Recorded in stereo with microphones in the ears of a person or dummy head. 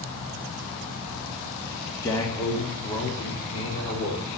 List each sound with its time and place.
2.0 s a man speaking: 15° left (ahead or behind), 2.5 m; by 4.3 s 35° left (ahead or behind), 4 m